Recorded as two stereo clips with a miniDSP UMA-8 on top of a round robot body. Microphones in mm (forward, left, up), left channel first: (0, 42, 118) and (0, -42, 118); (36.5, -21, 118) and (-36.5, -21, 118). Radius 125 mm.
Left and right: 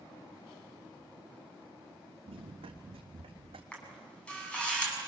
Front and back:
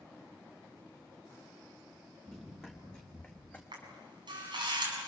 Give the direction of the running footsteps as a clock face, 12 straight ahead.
3 o'clock.